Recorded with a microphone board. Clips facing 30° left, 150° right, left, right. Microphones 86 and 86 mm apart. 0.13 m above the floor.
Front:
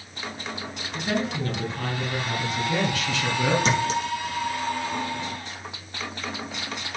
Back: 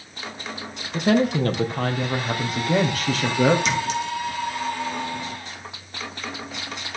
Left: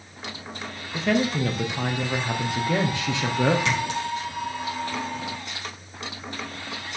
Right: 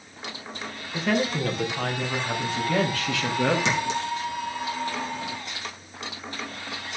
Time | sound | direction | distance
0.9 | a woman speaking | 175° right | 2.5 m
3.6 | a clink | 20° right | 2.5 m